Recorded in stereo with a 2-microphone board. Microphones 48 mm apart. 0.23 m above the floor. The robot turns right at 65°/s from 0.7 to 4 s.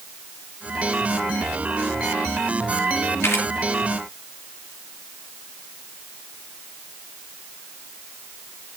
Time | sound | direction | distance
3.2 | a camera shutter | 65° left (ahead or behind) | 5 m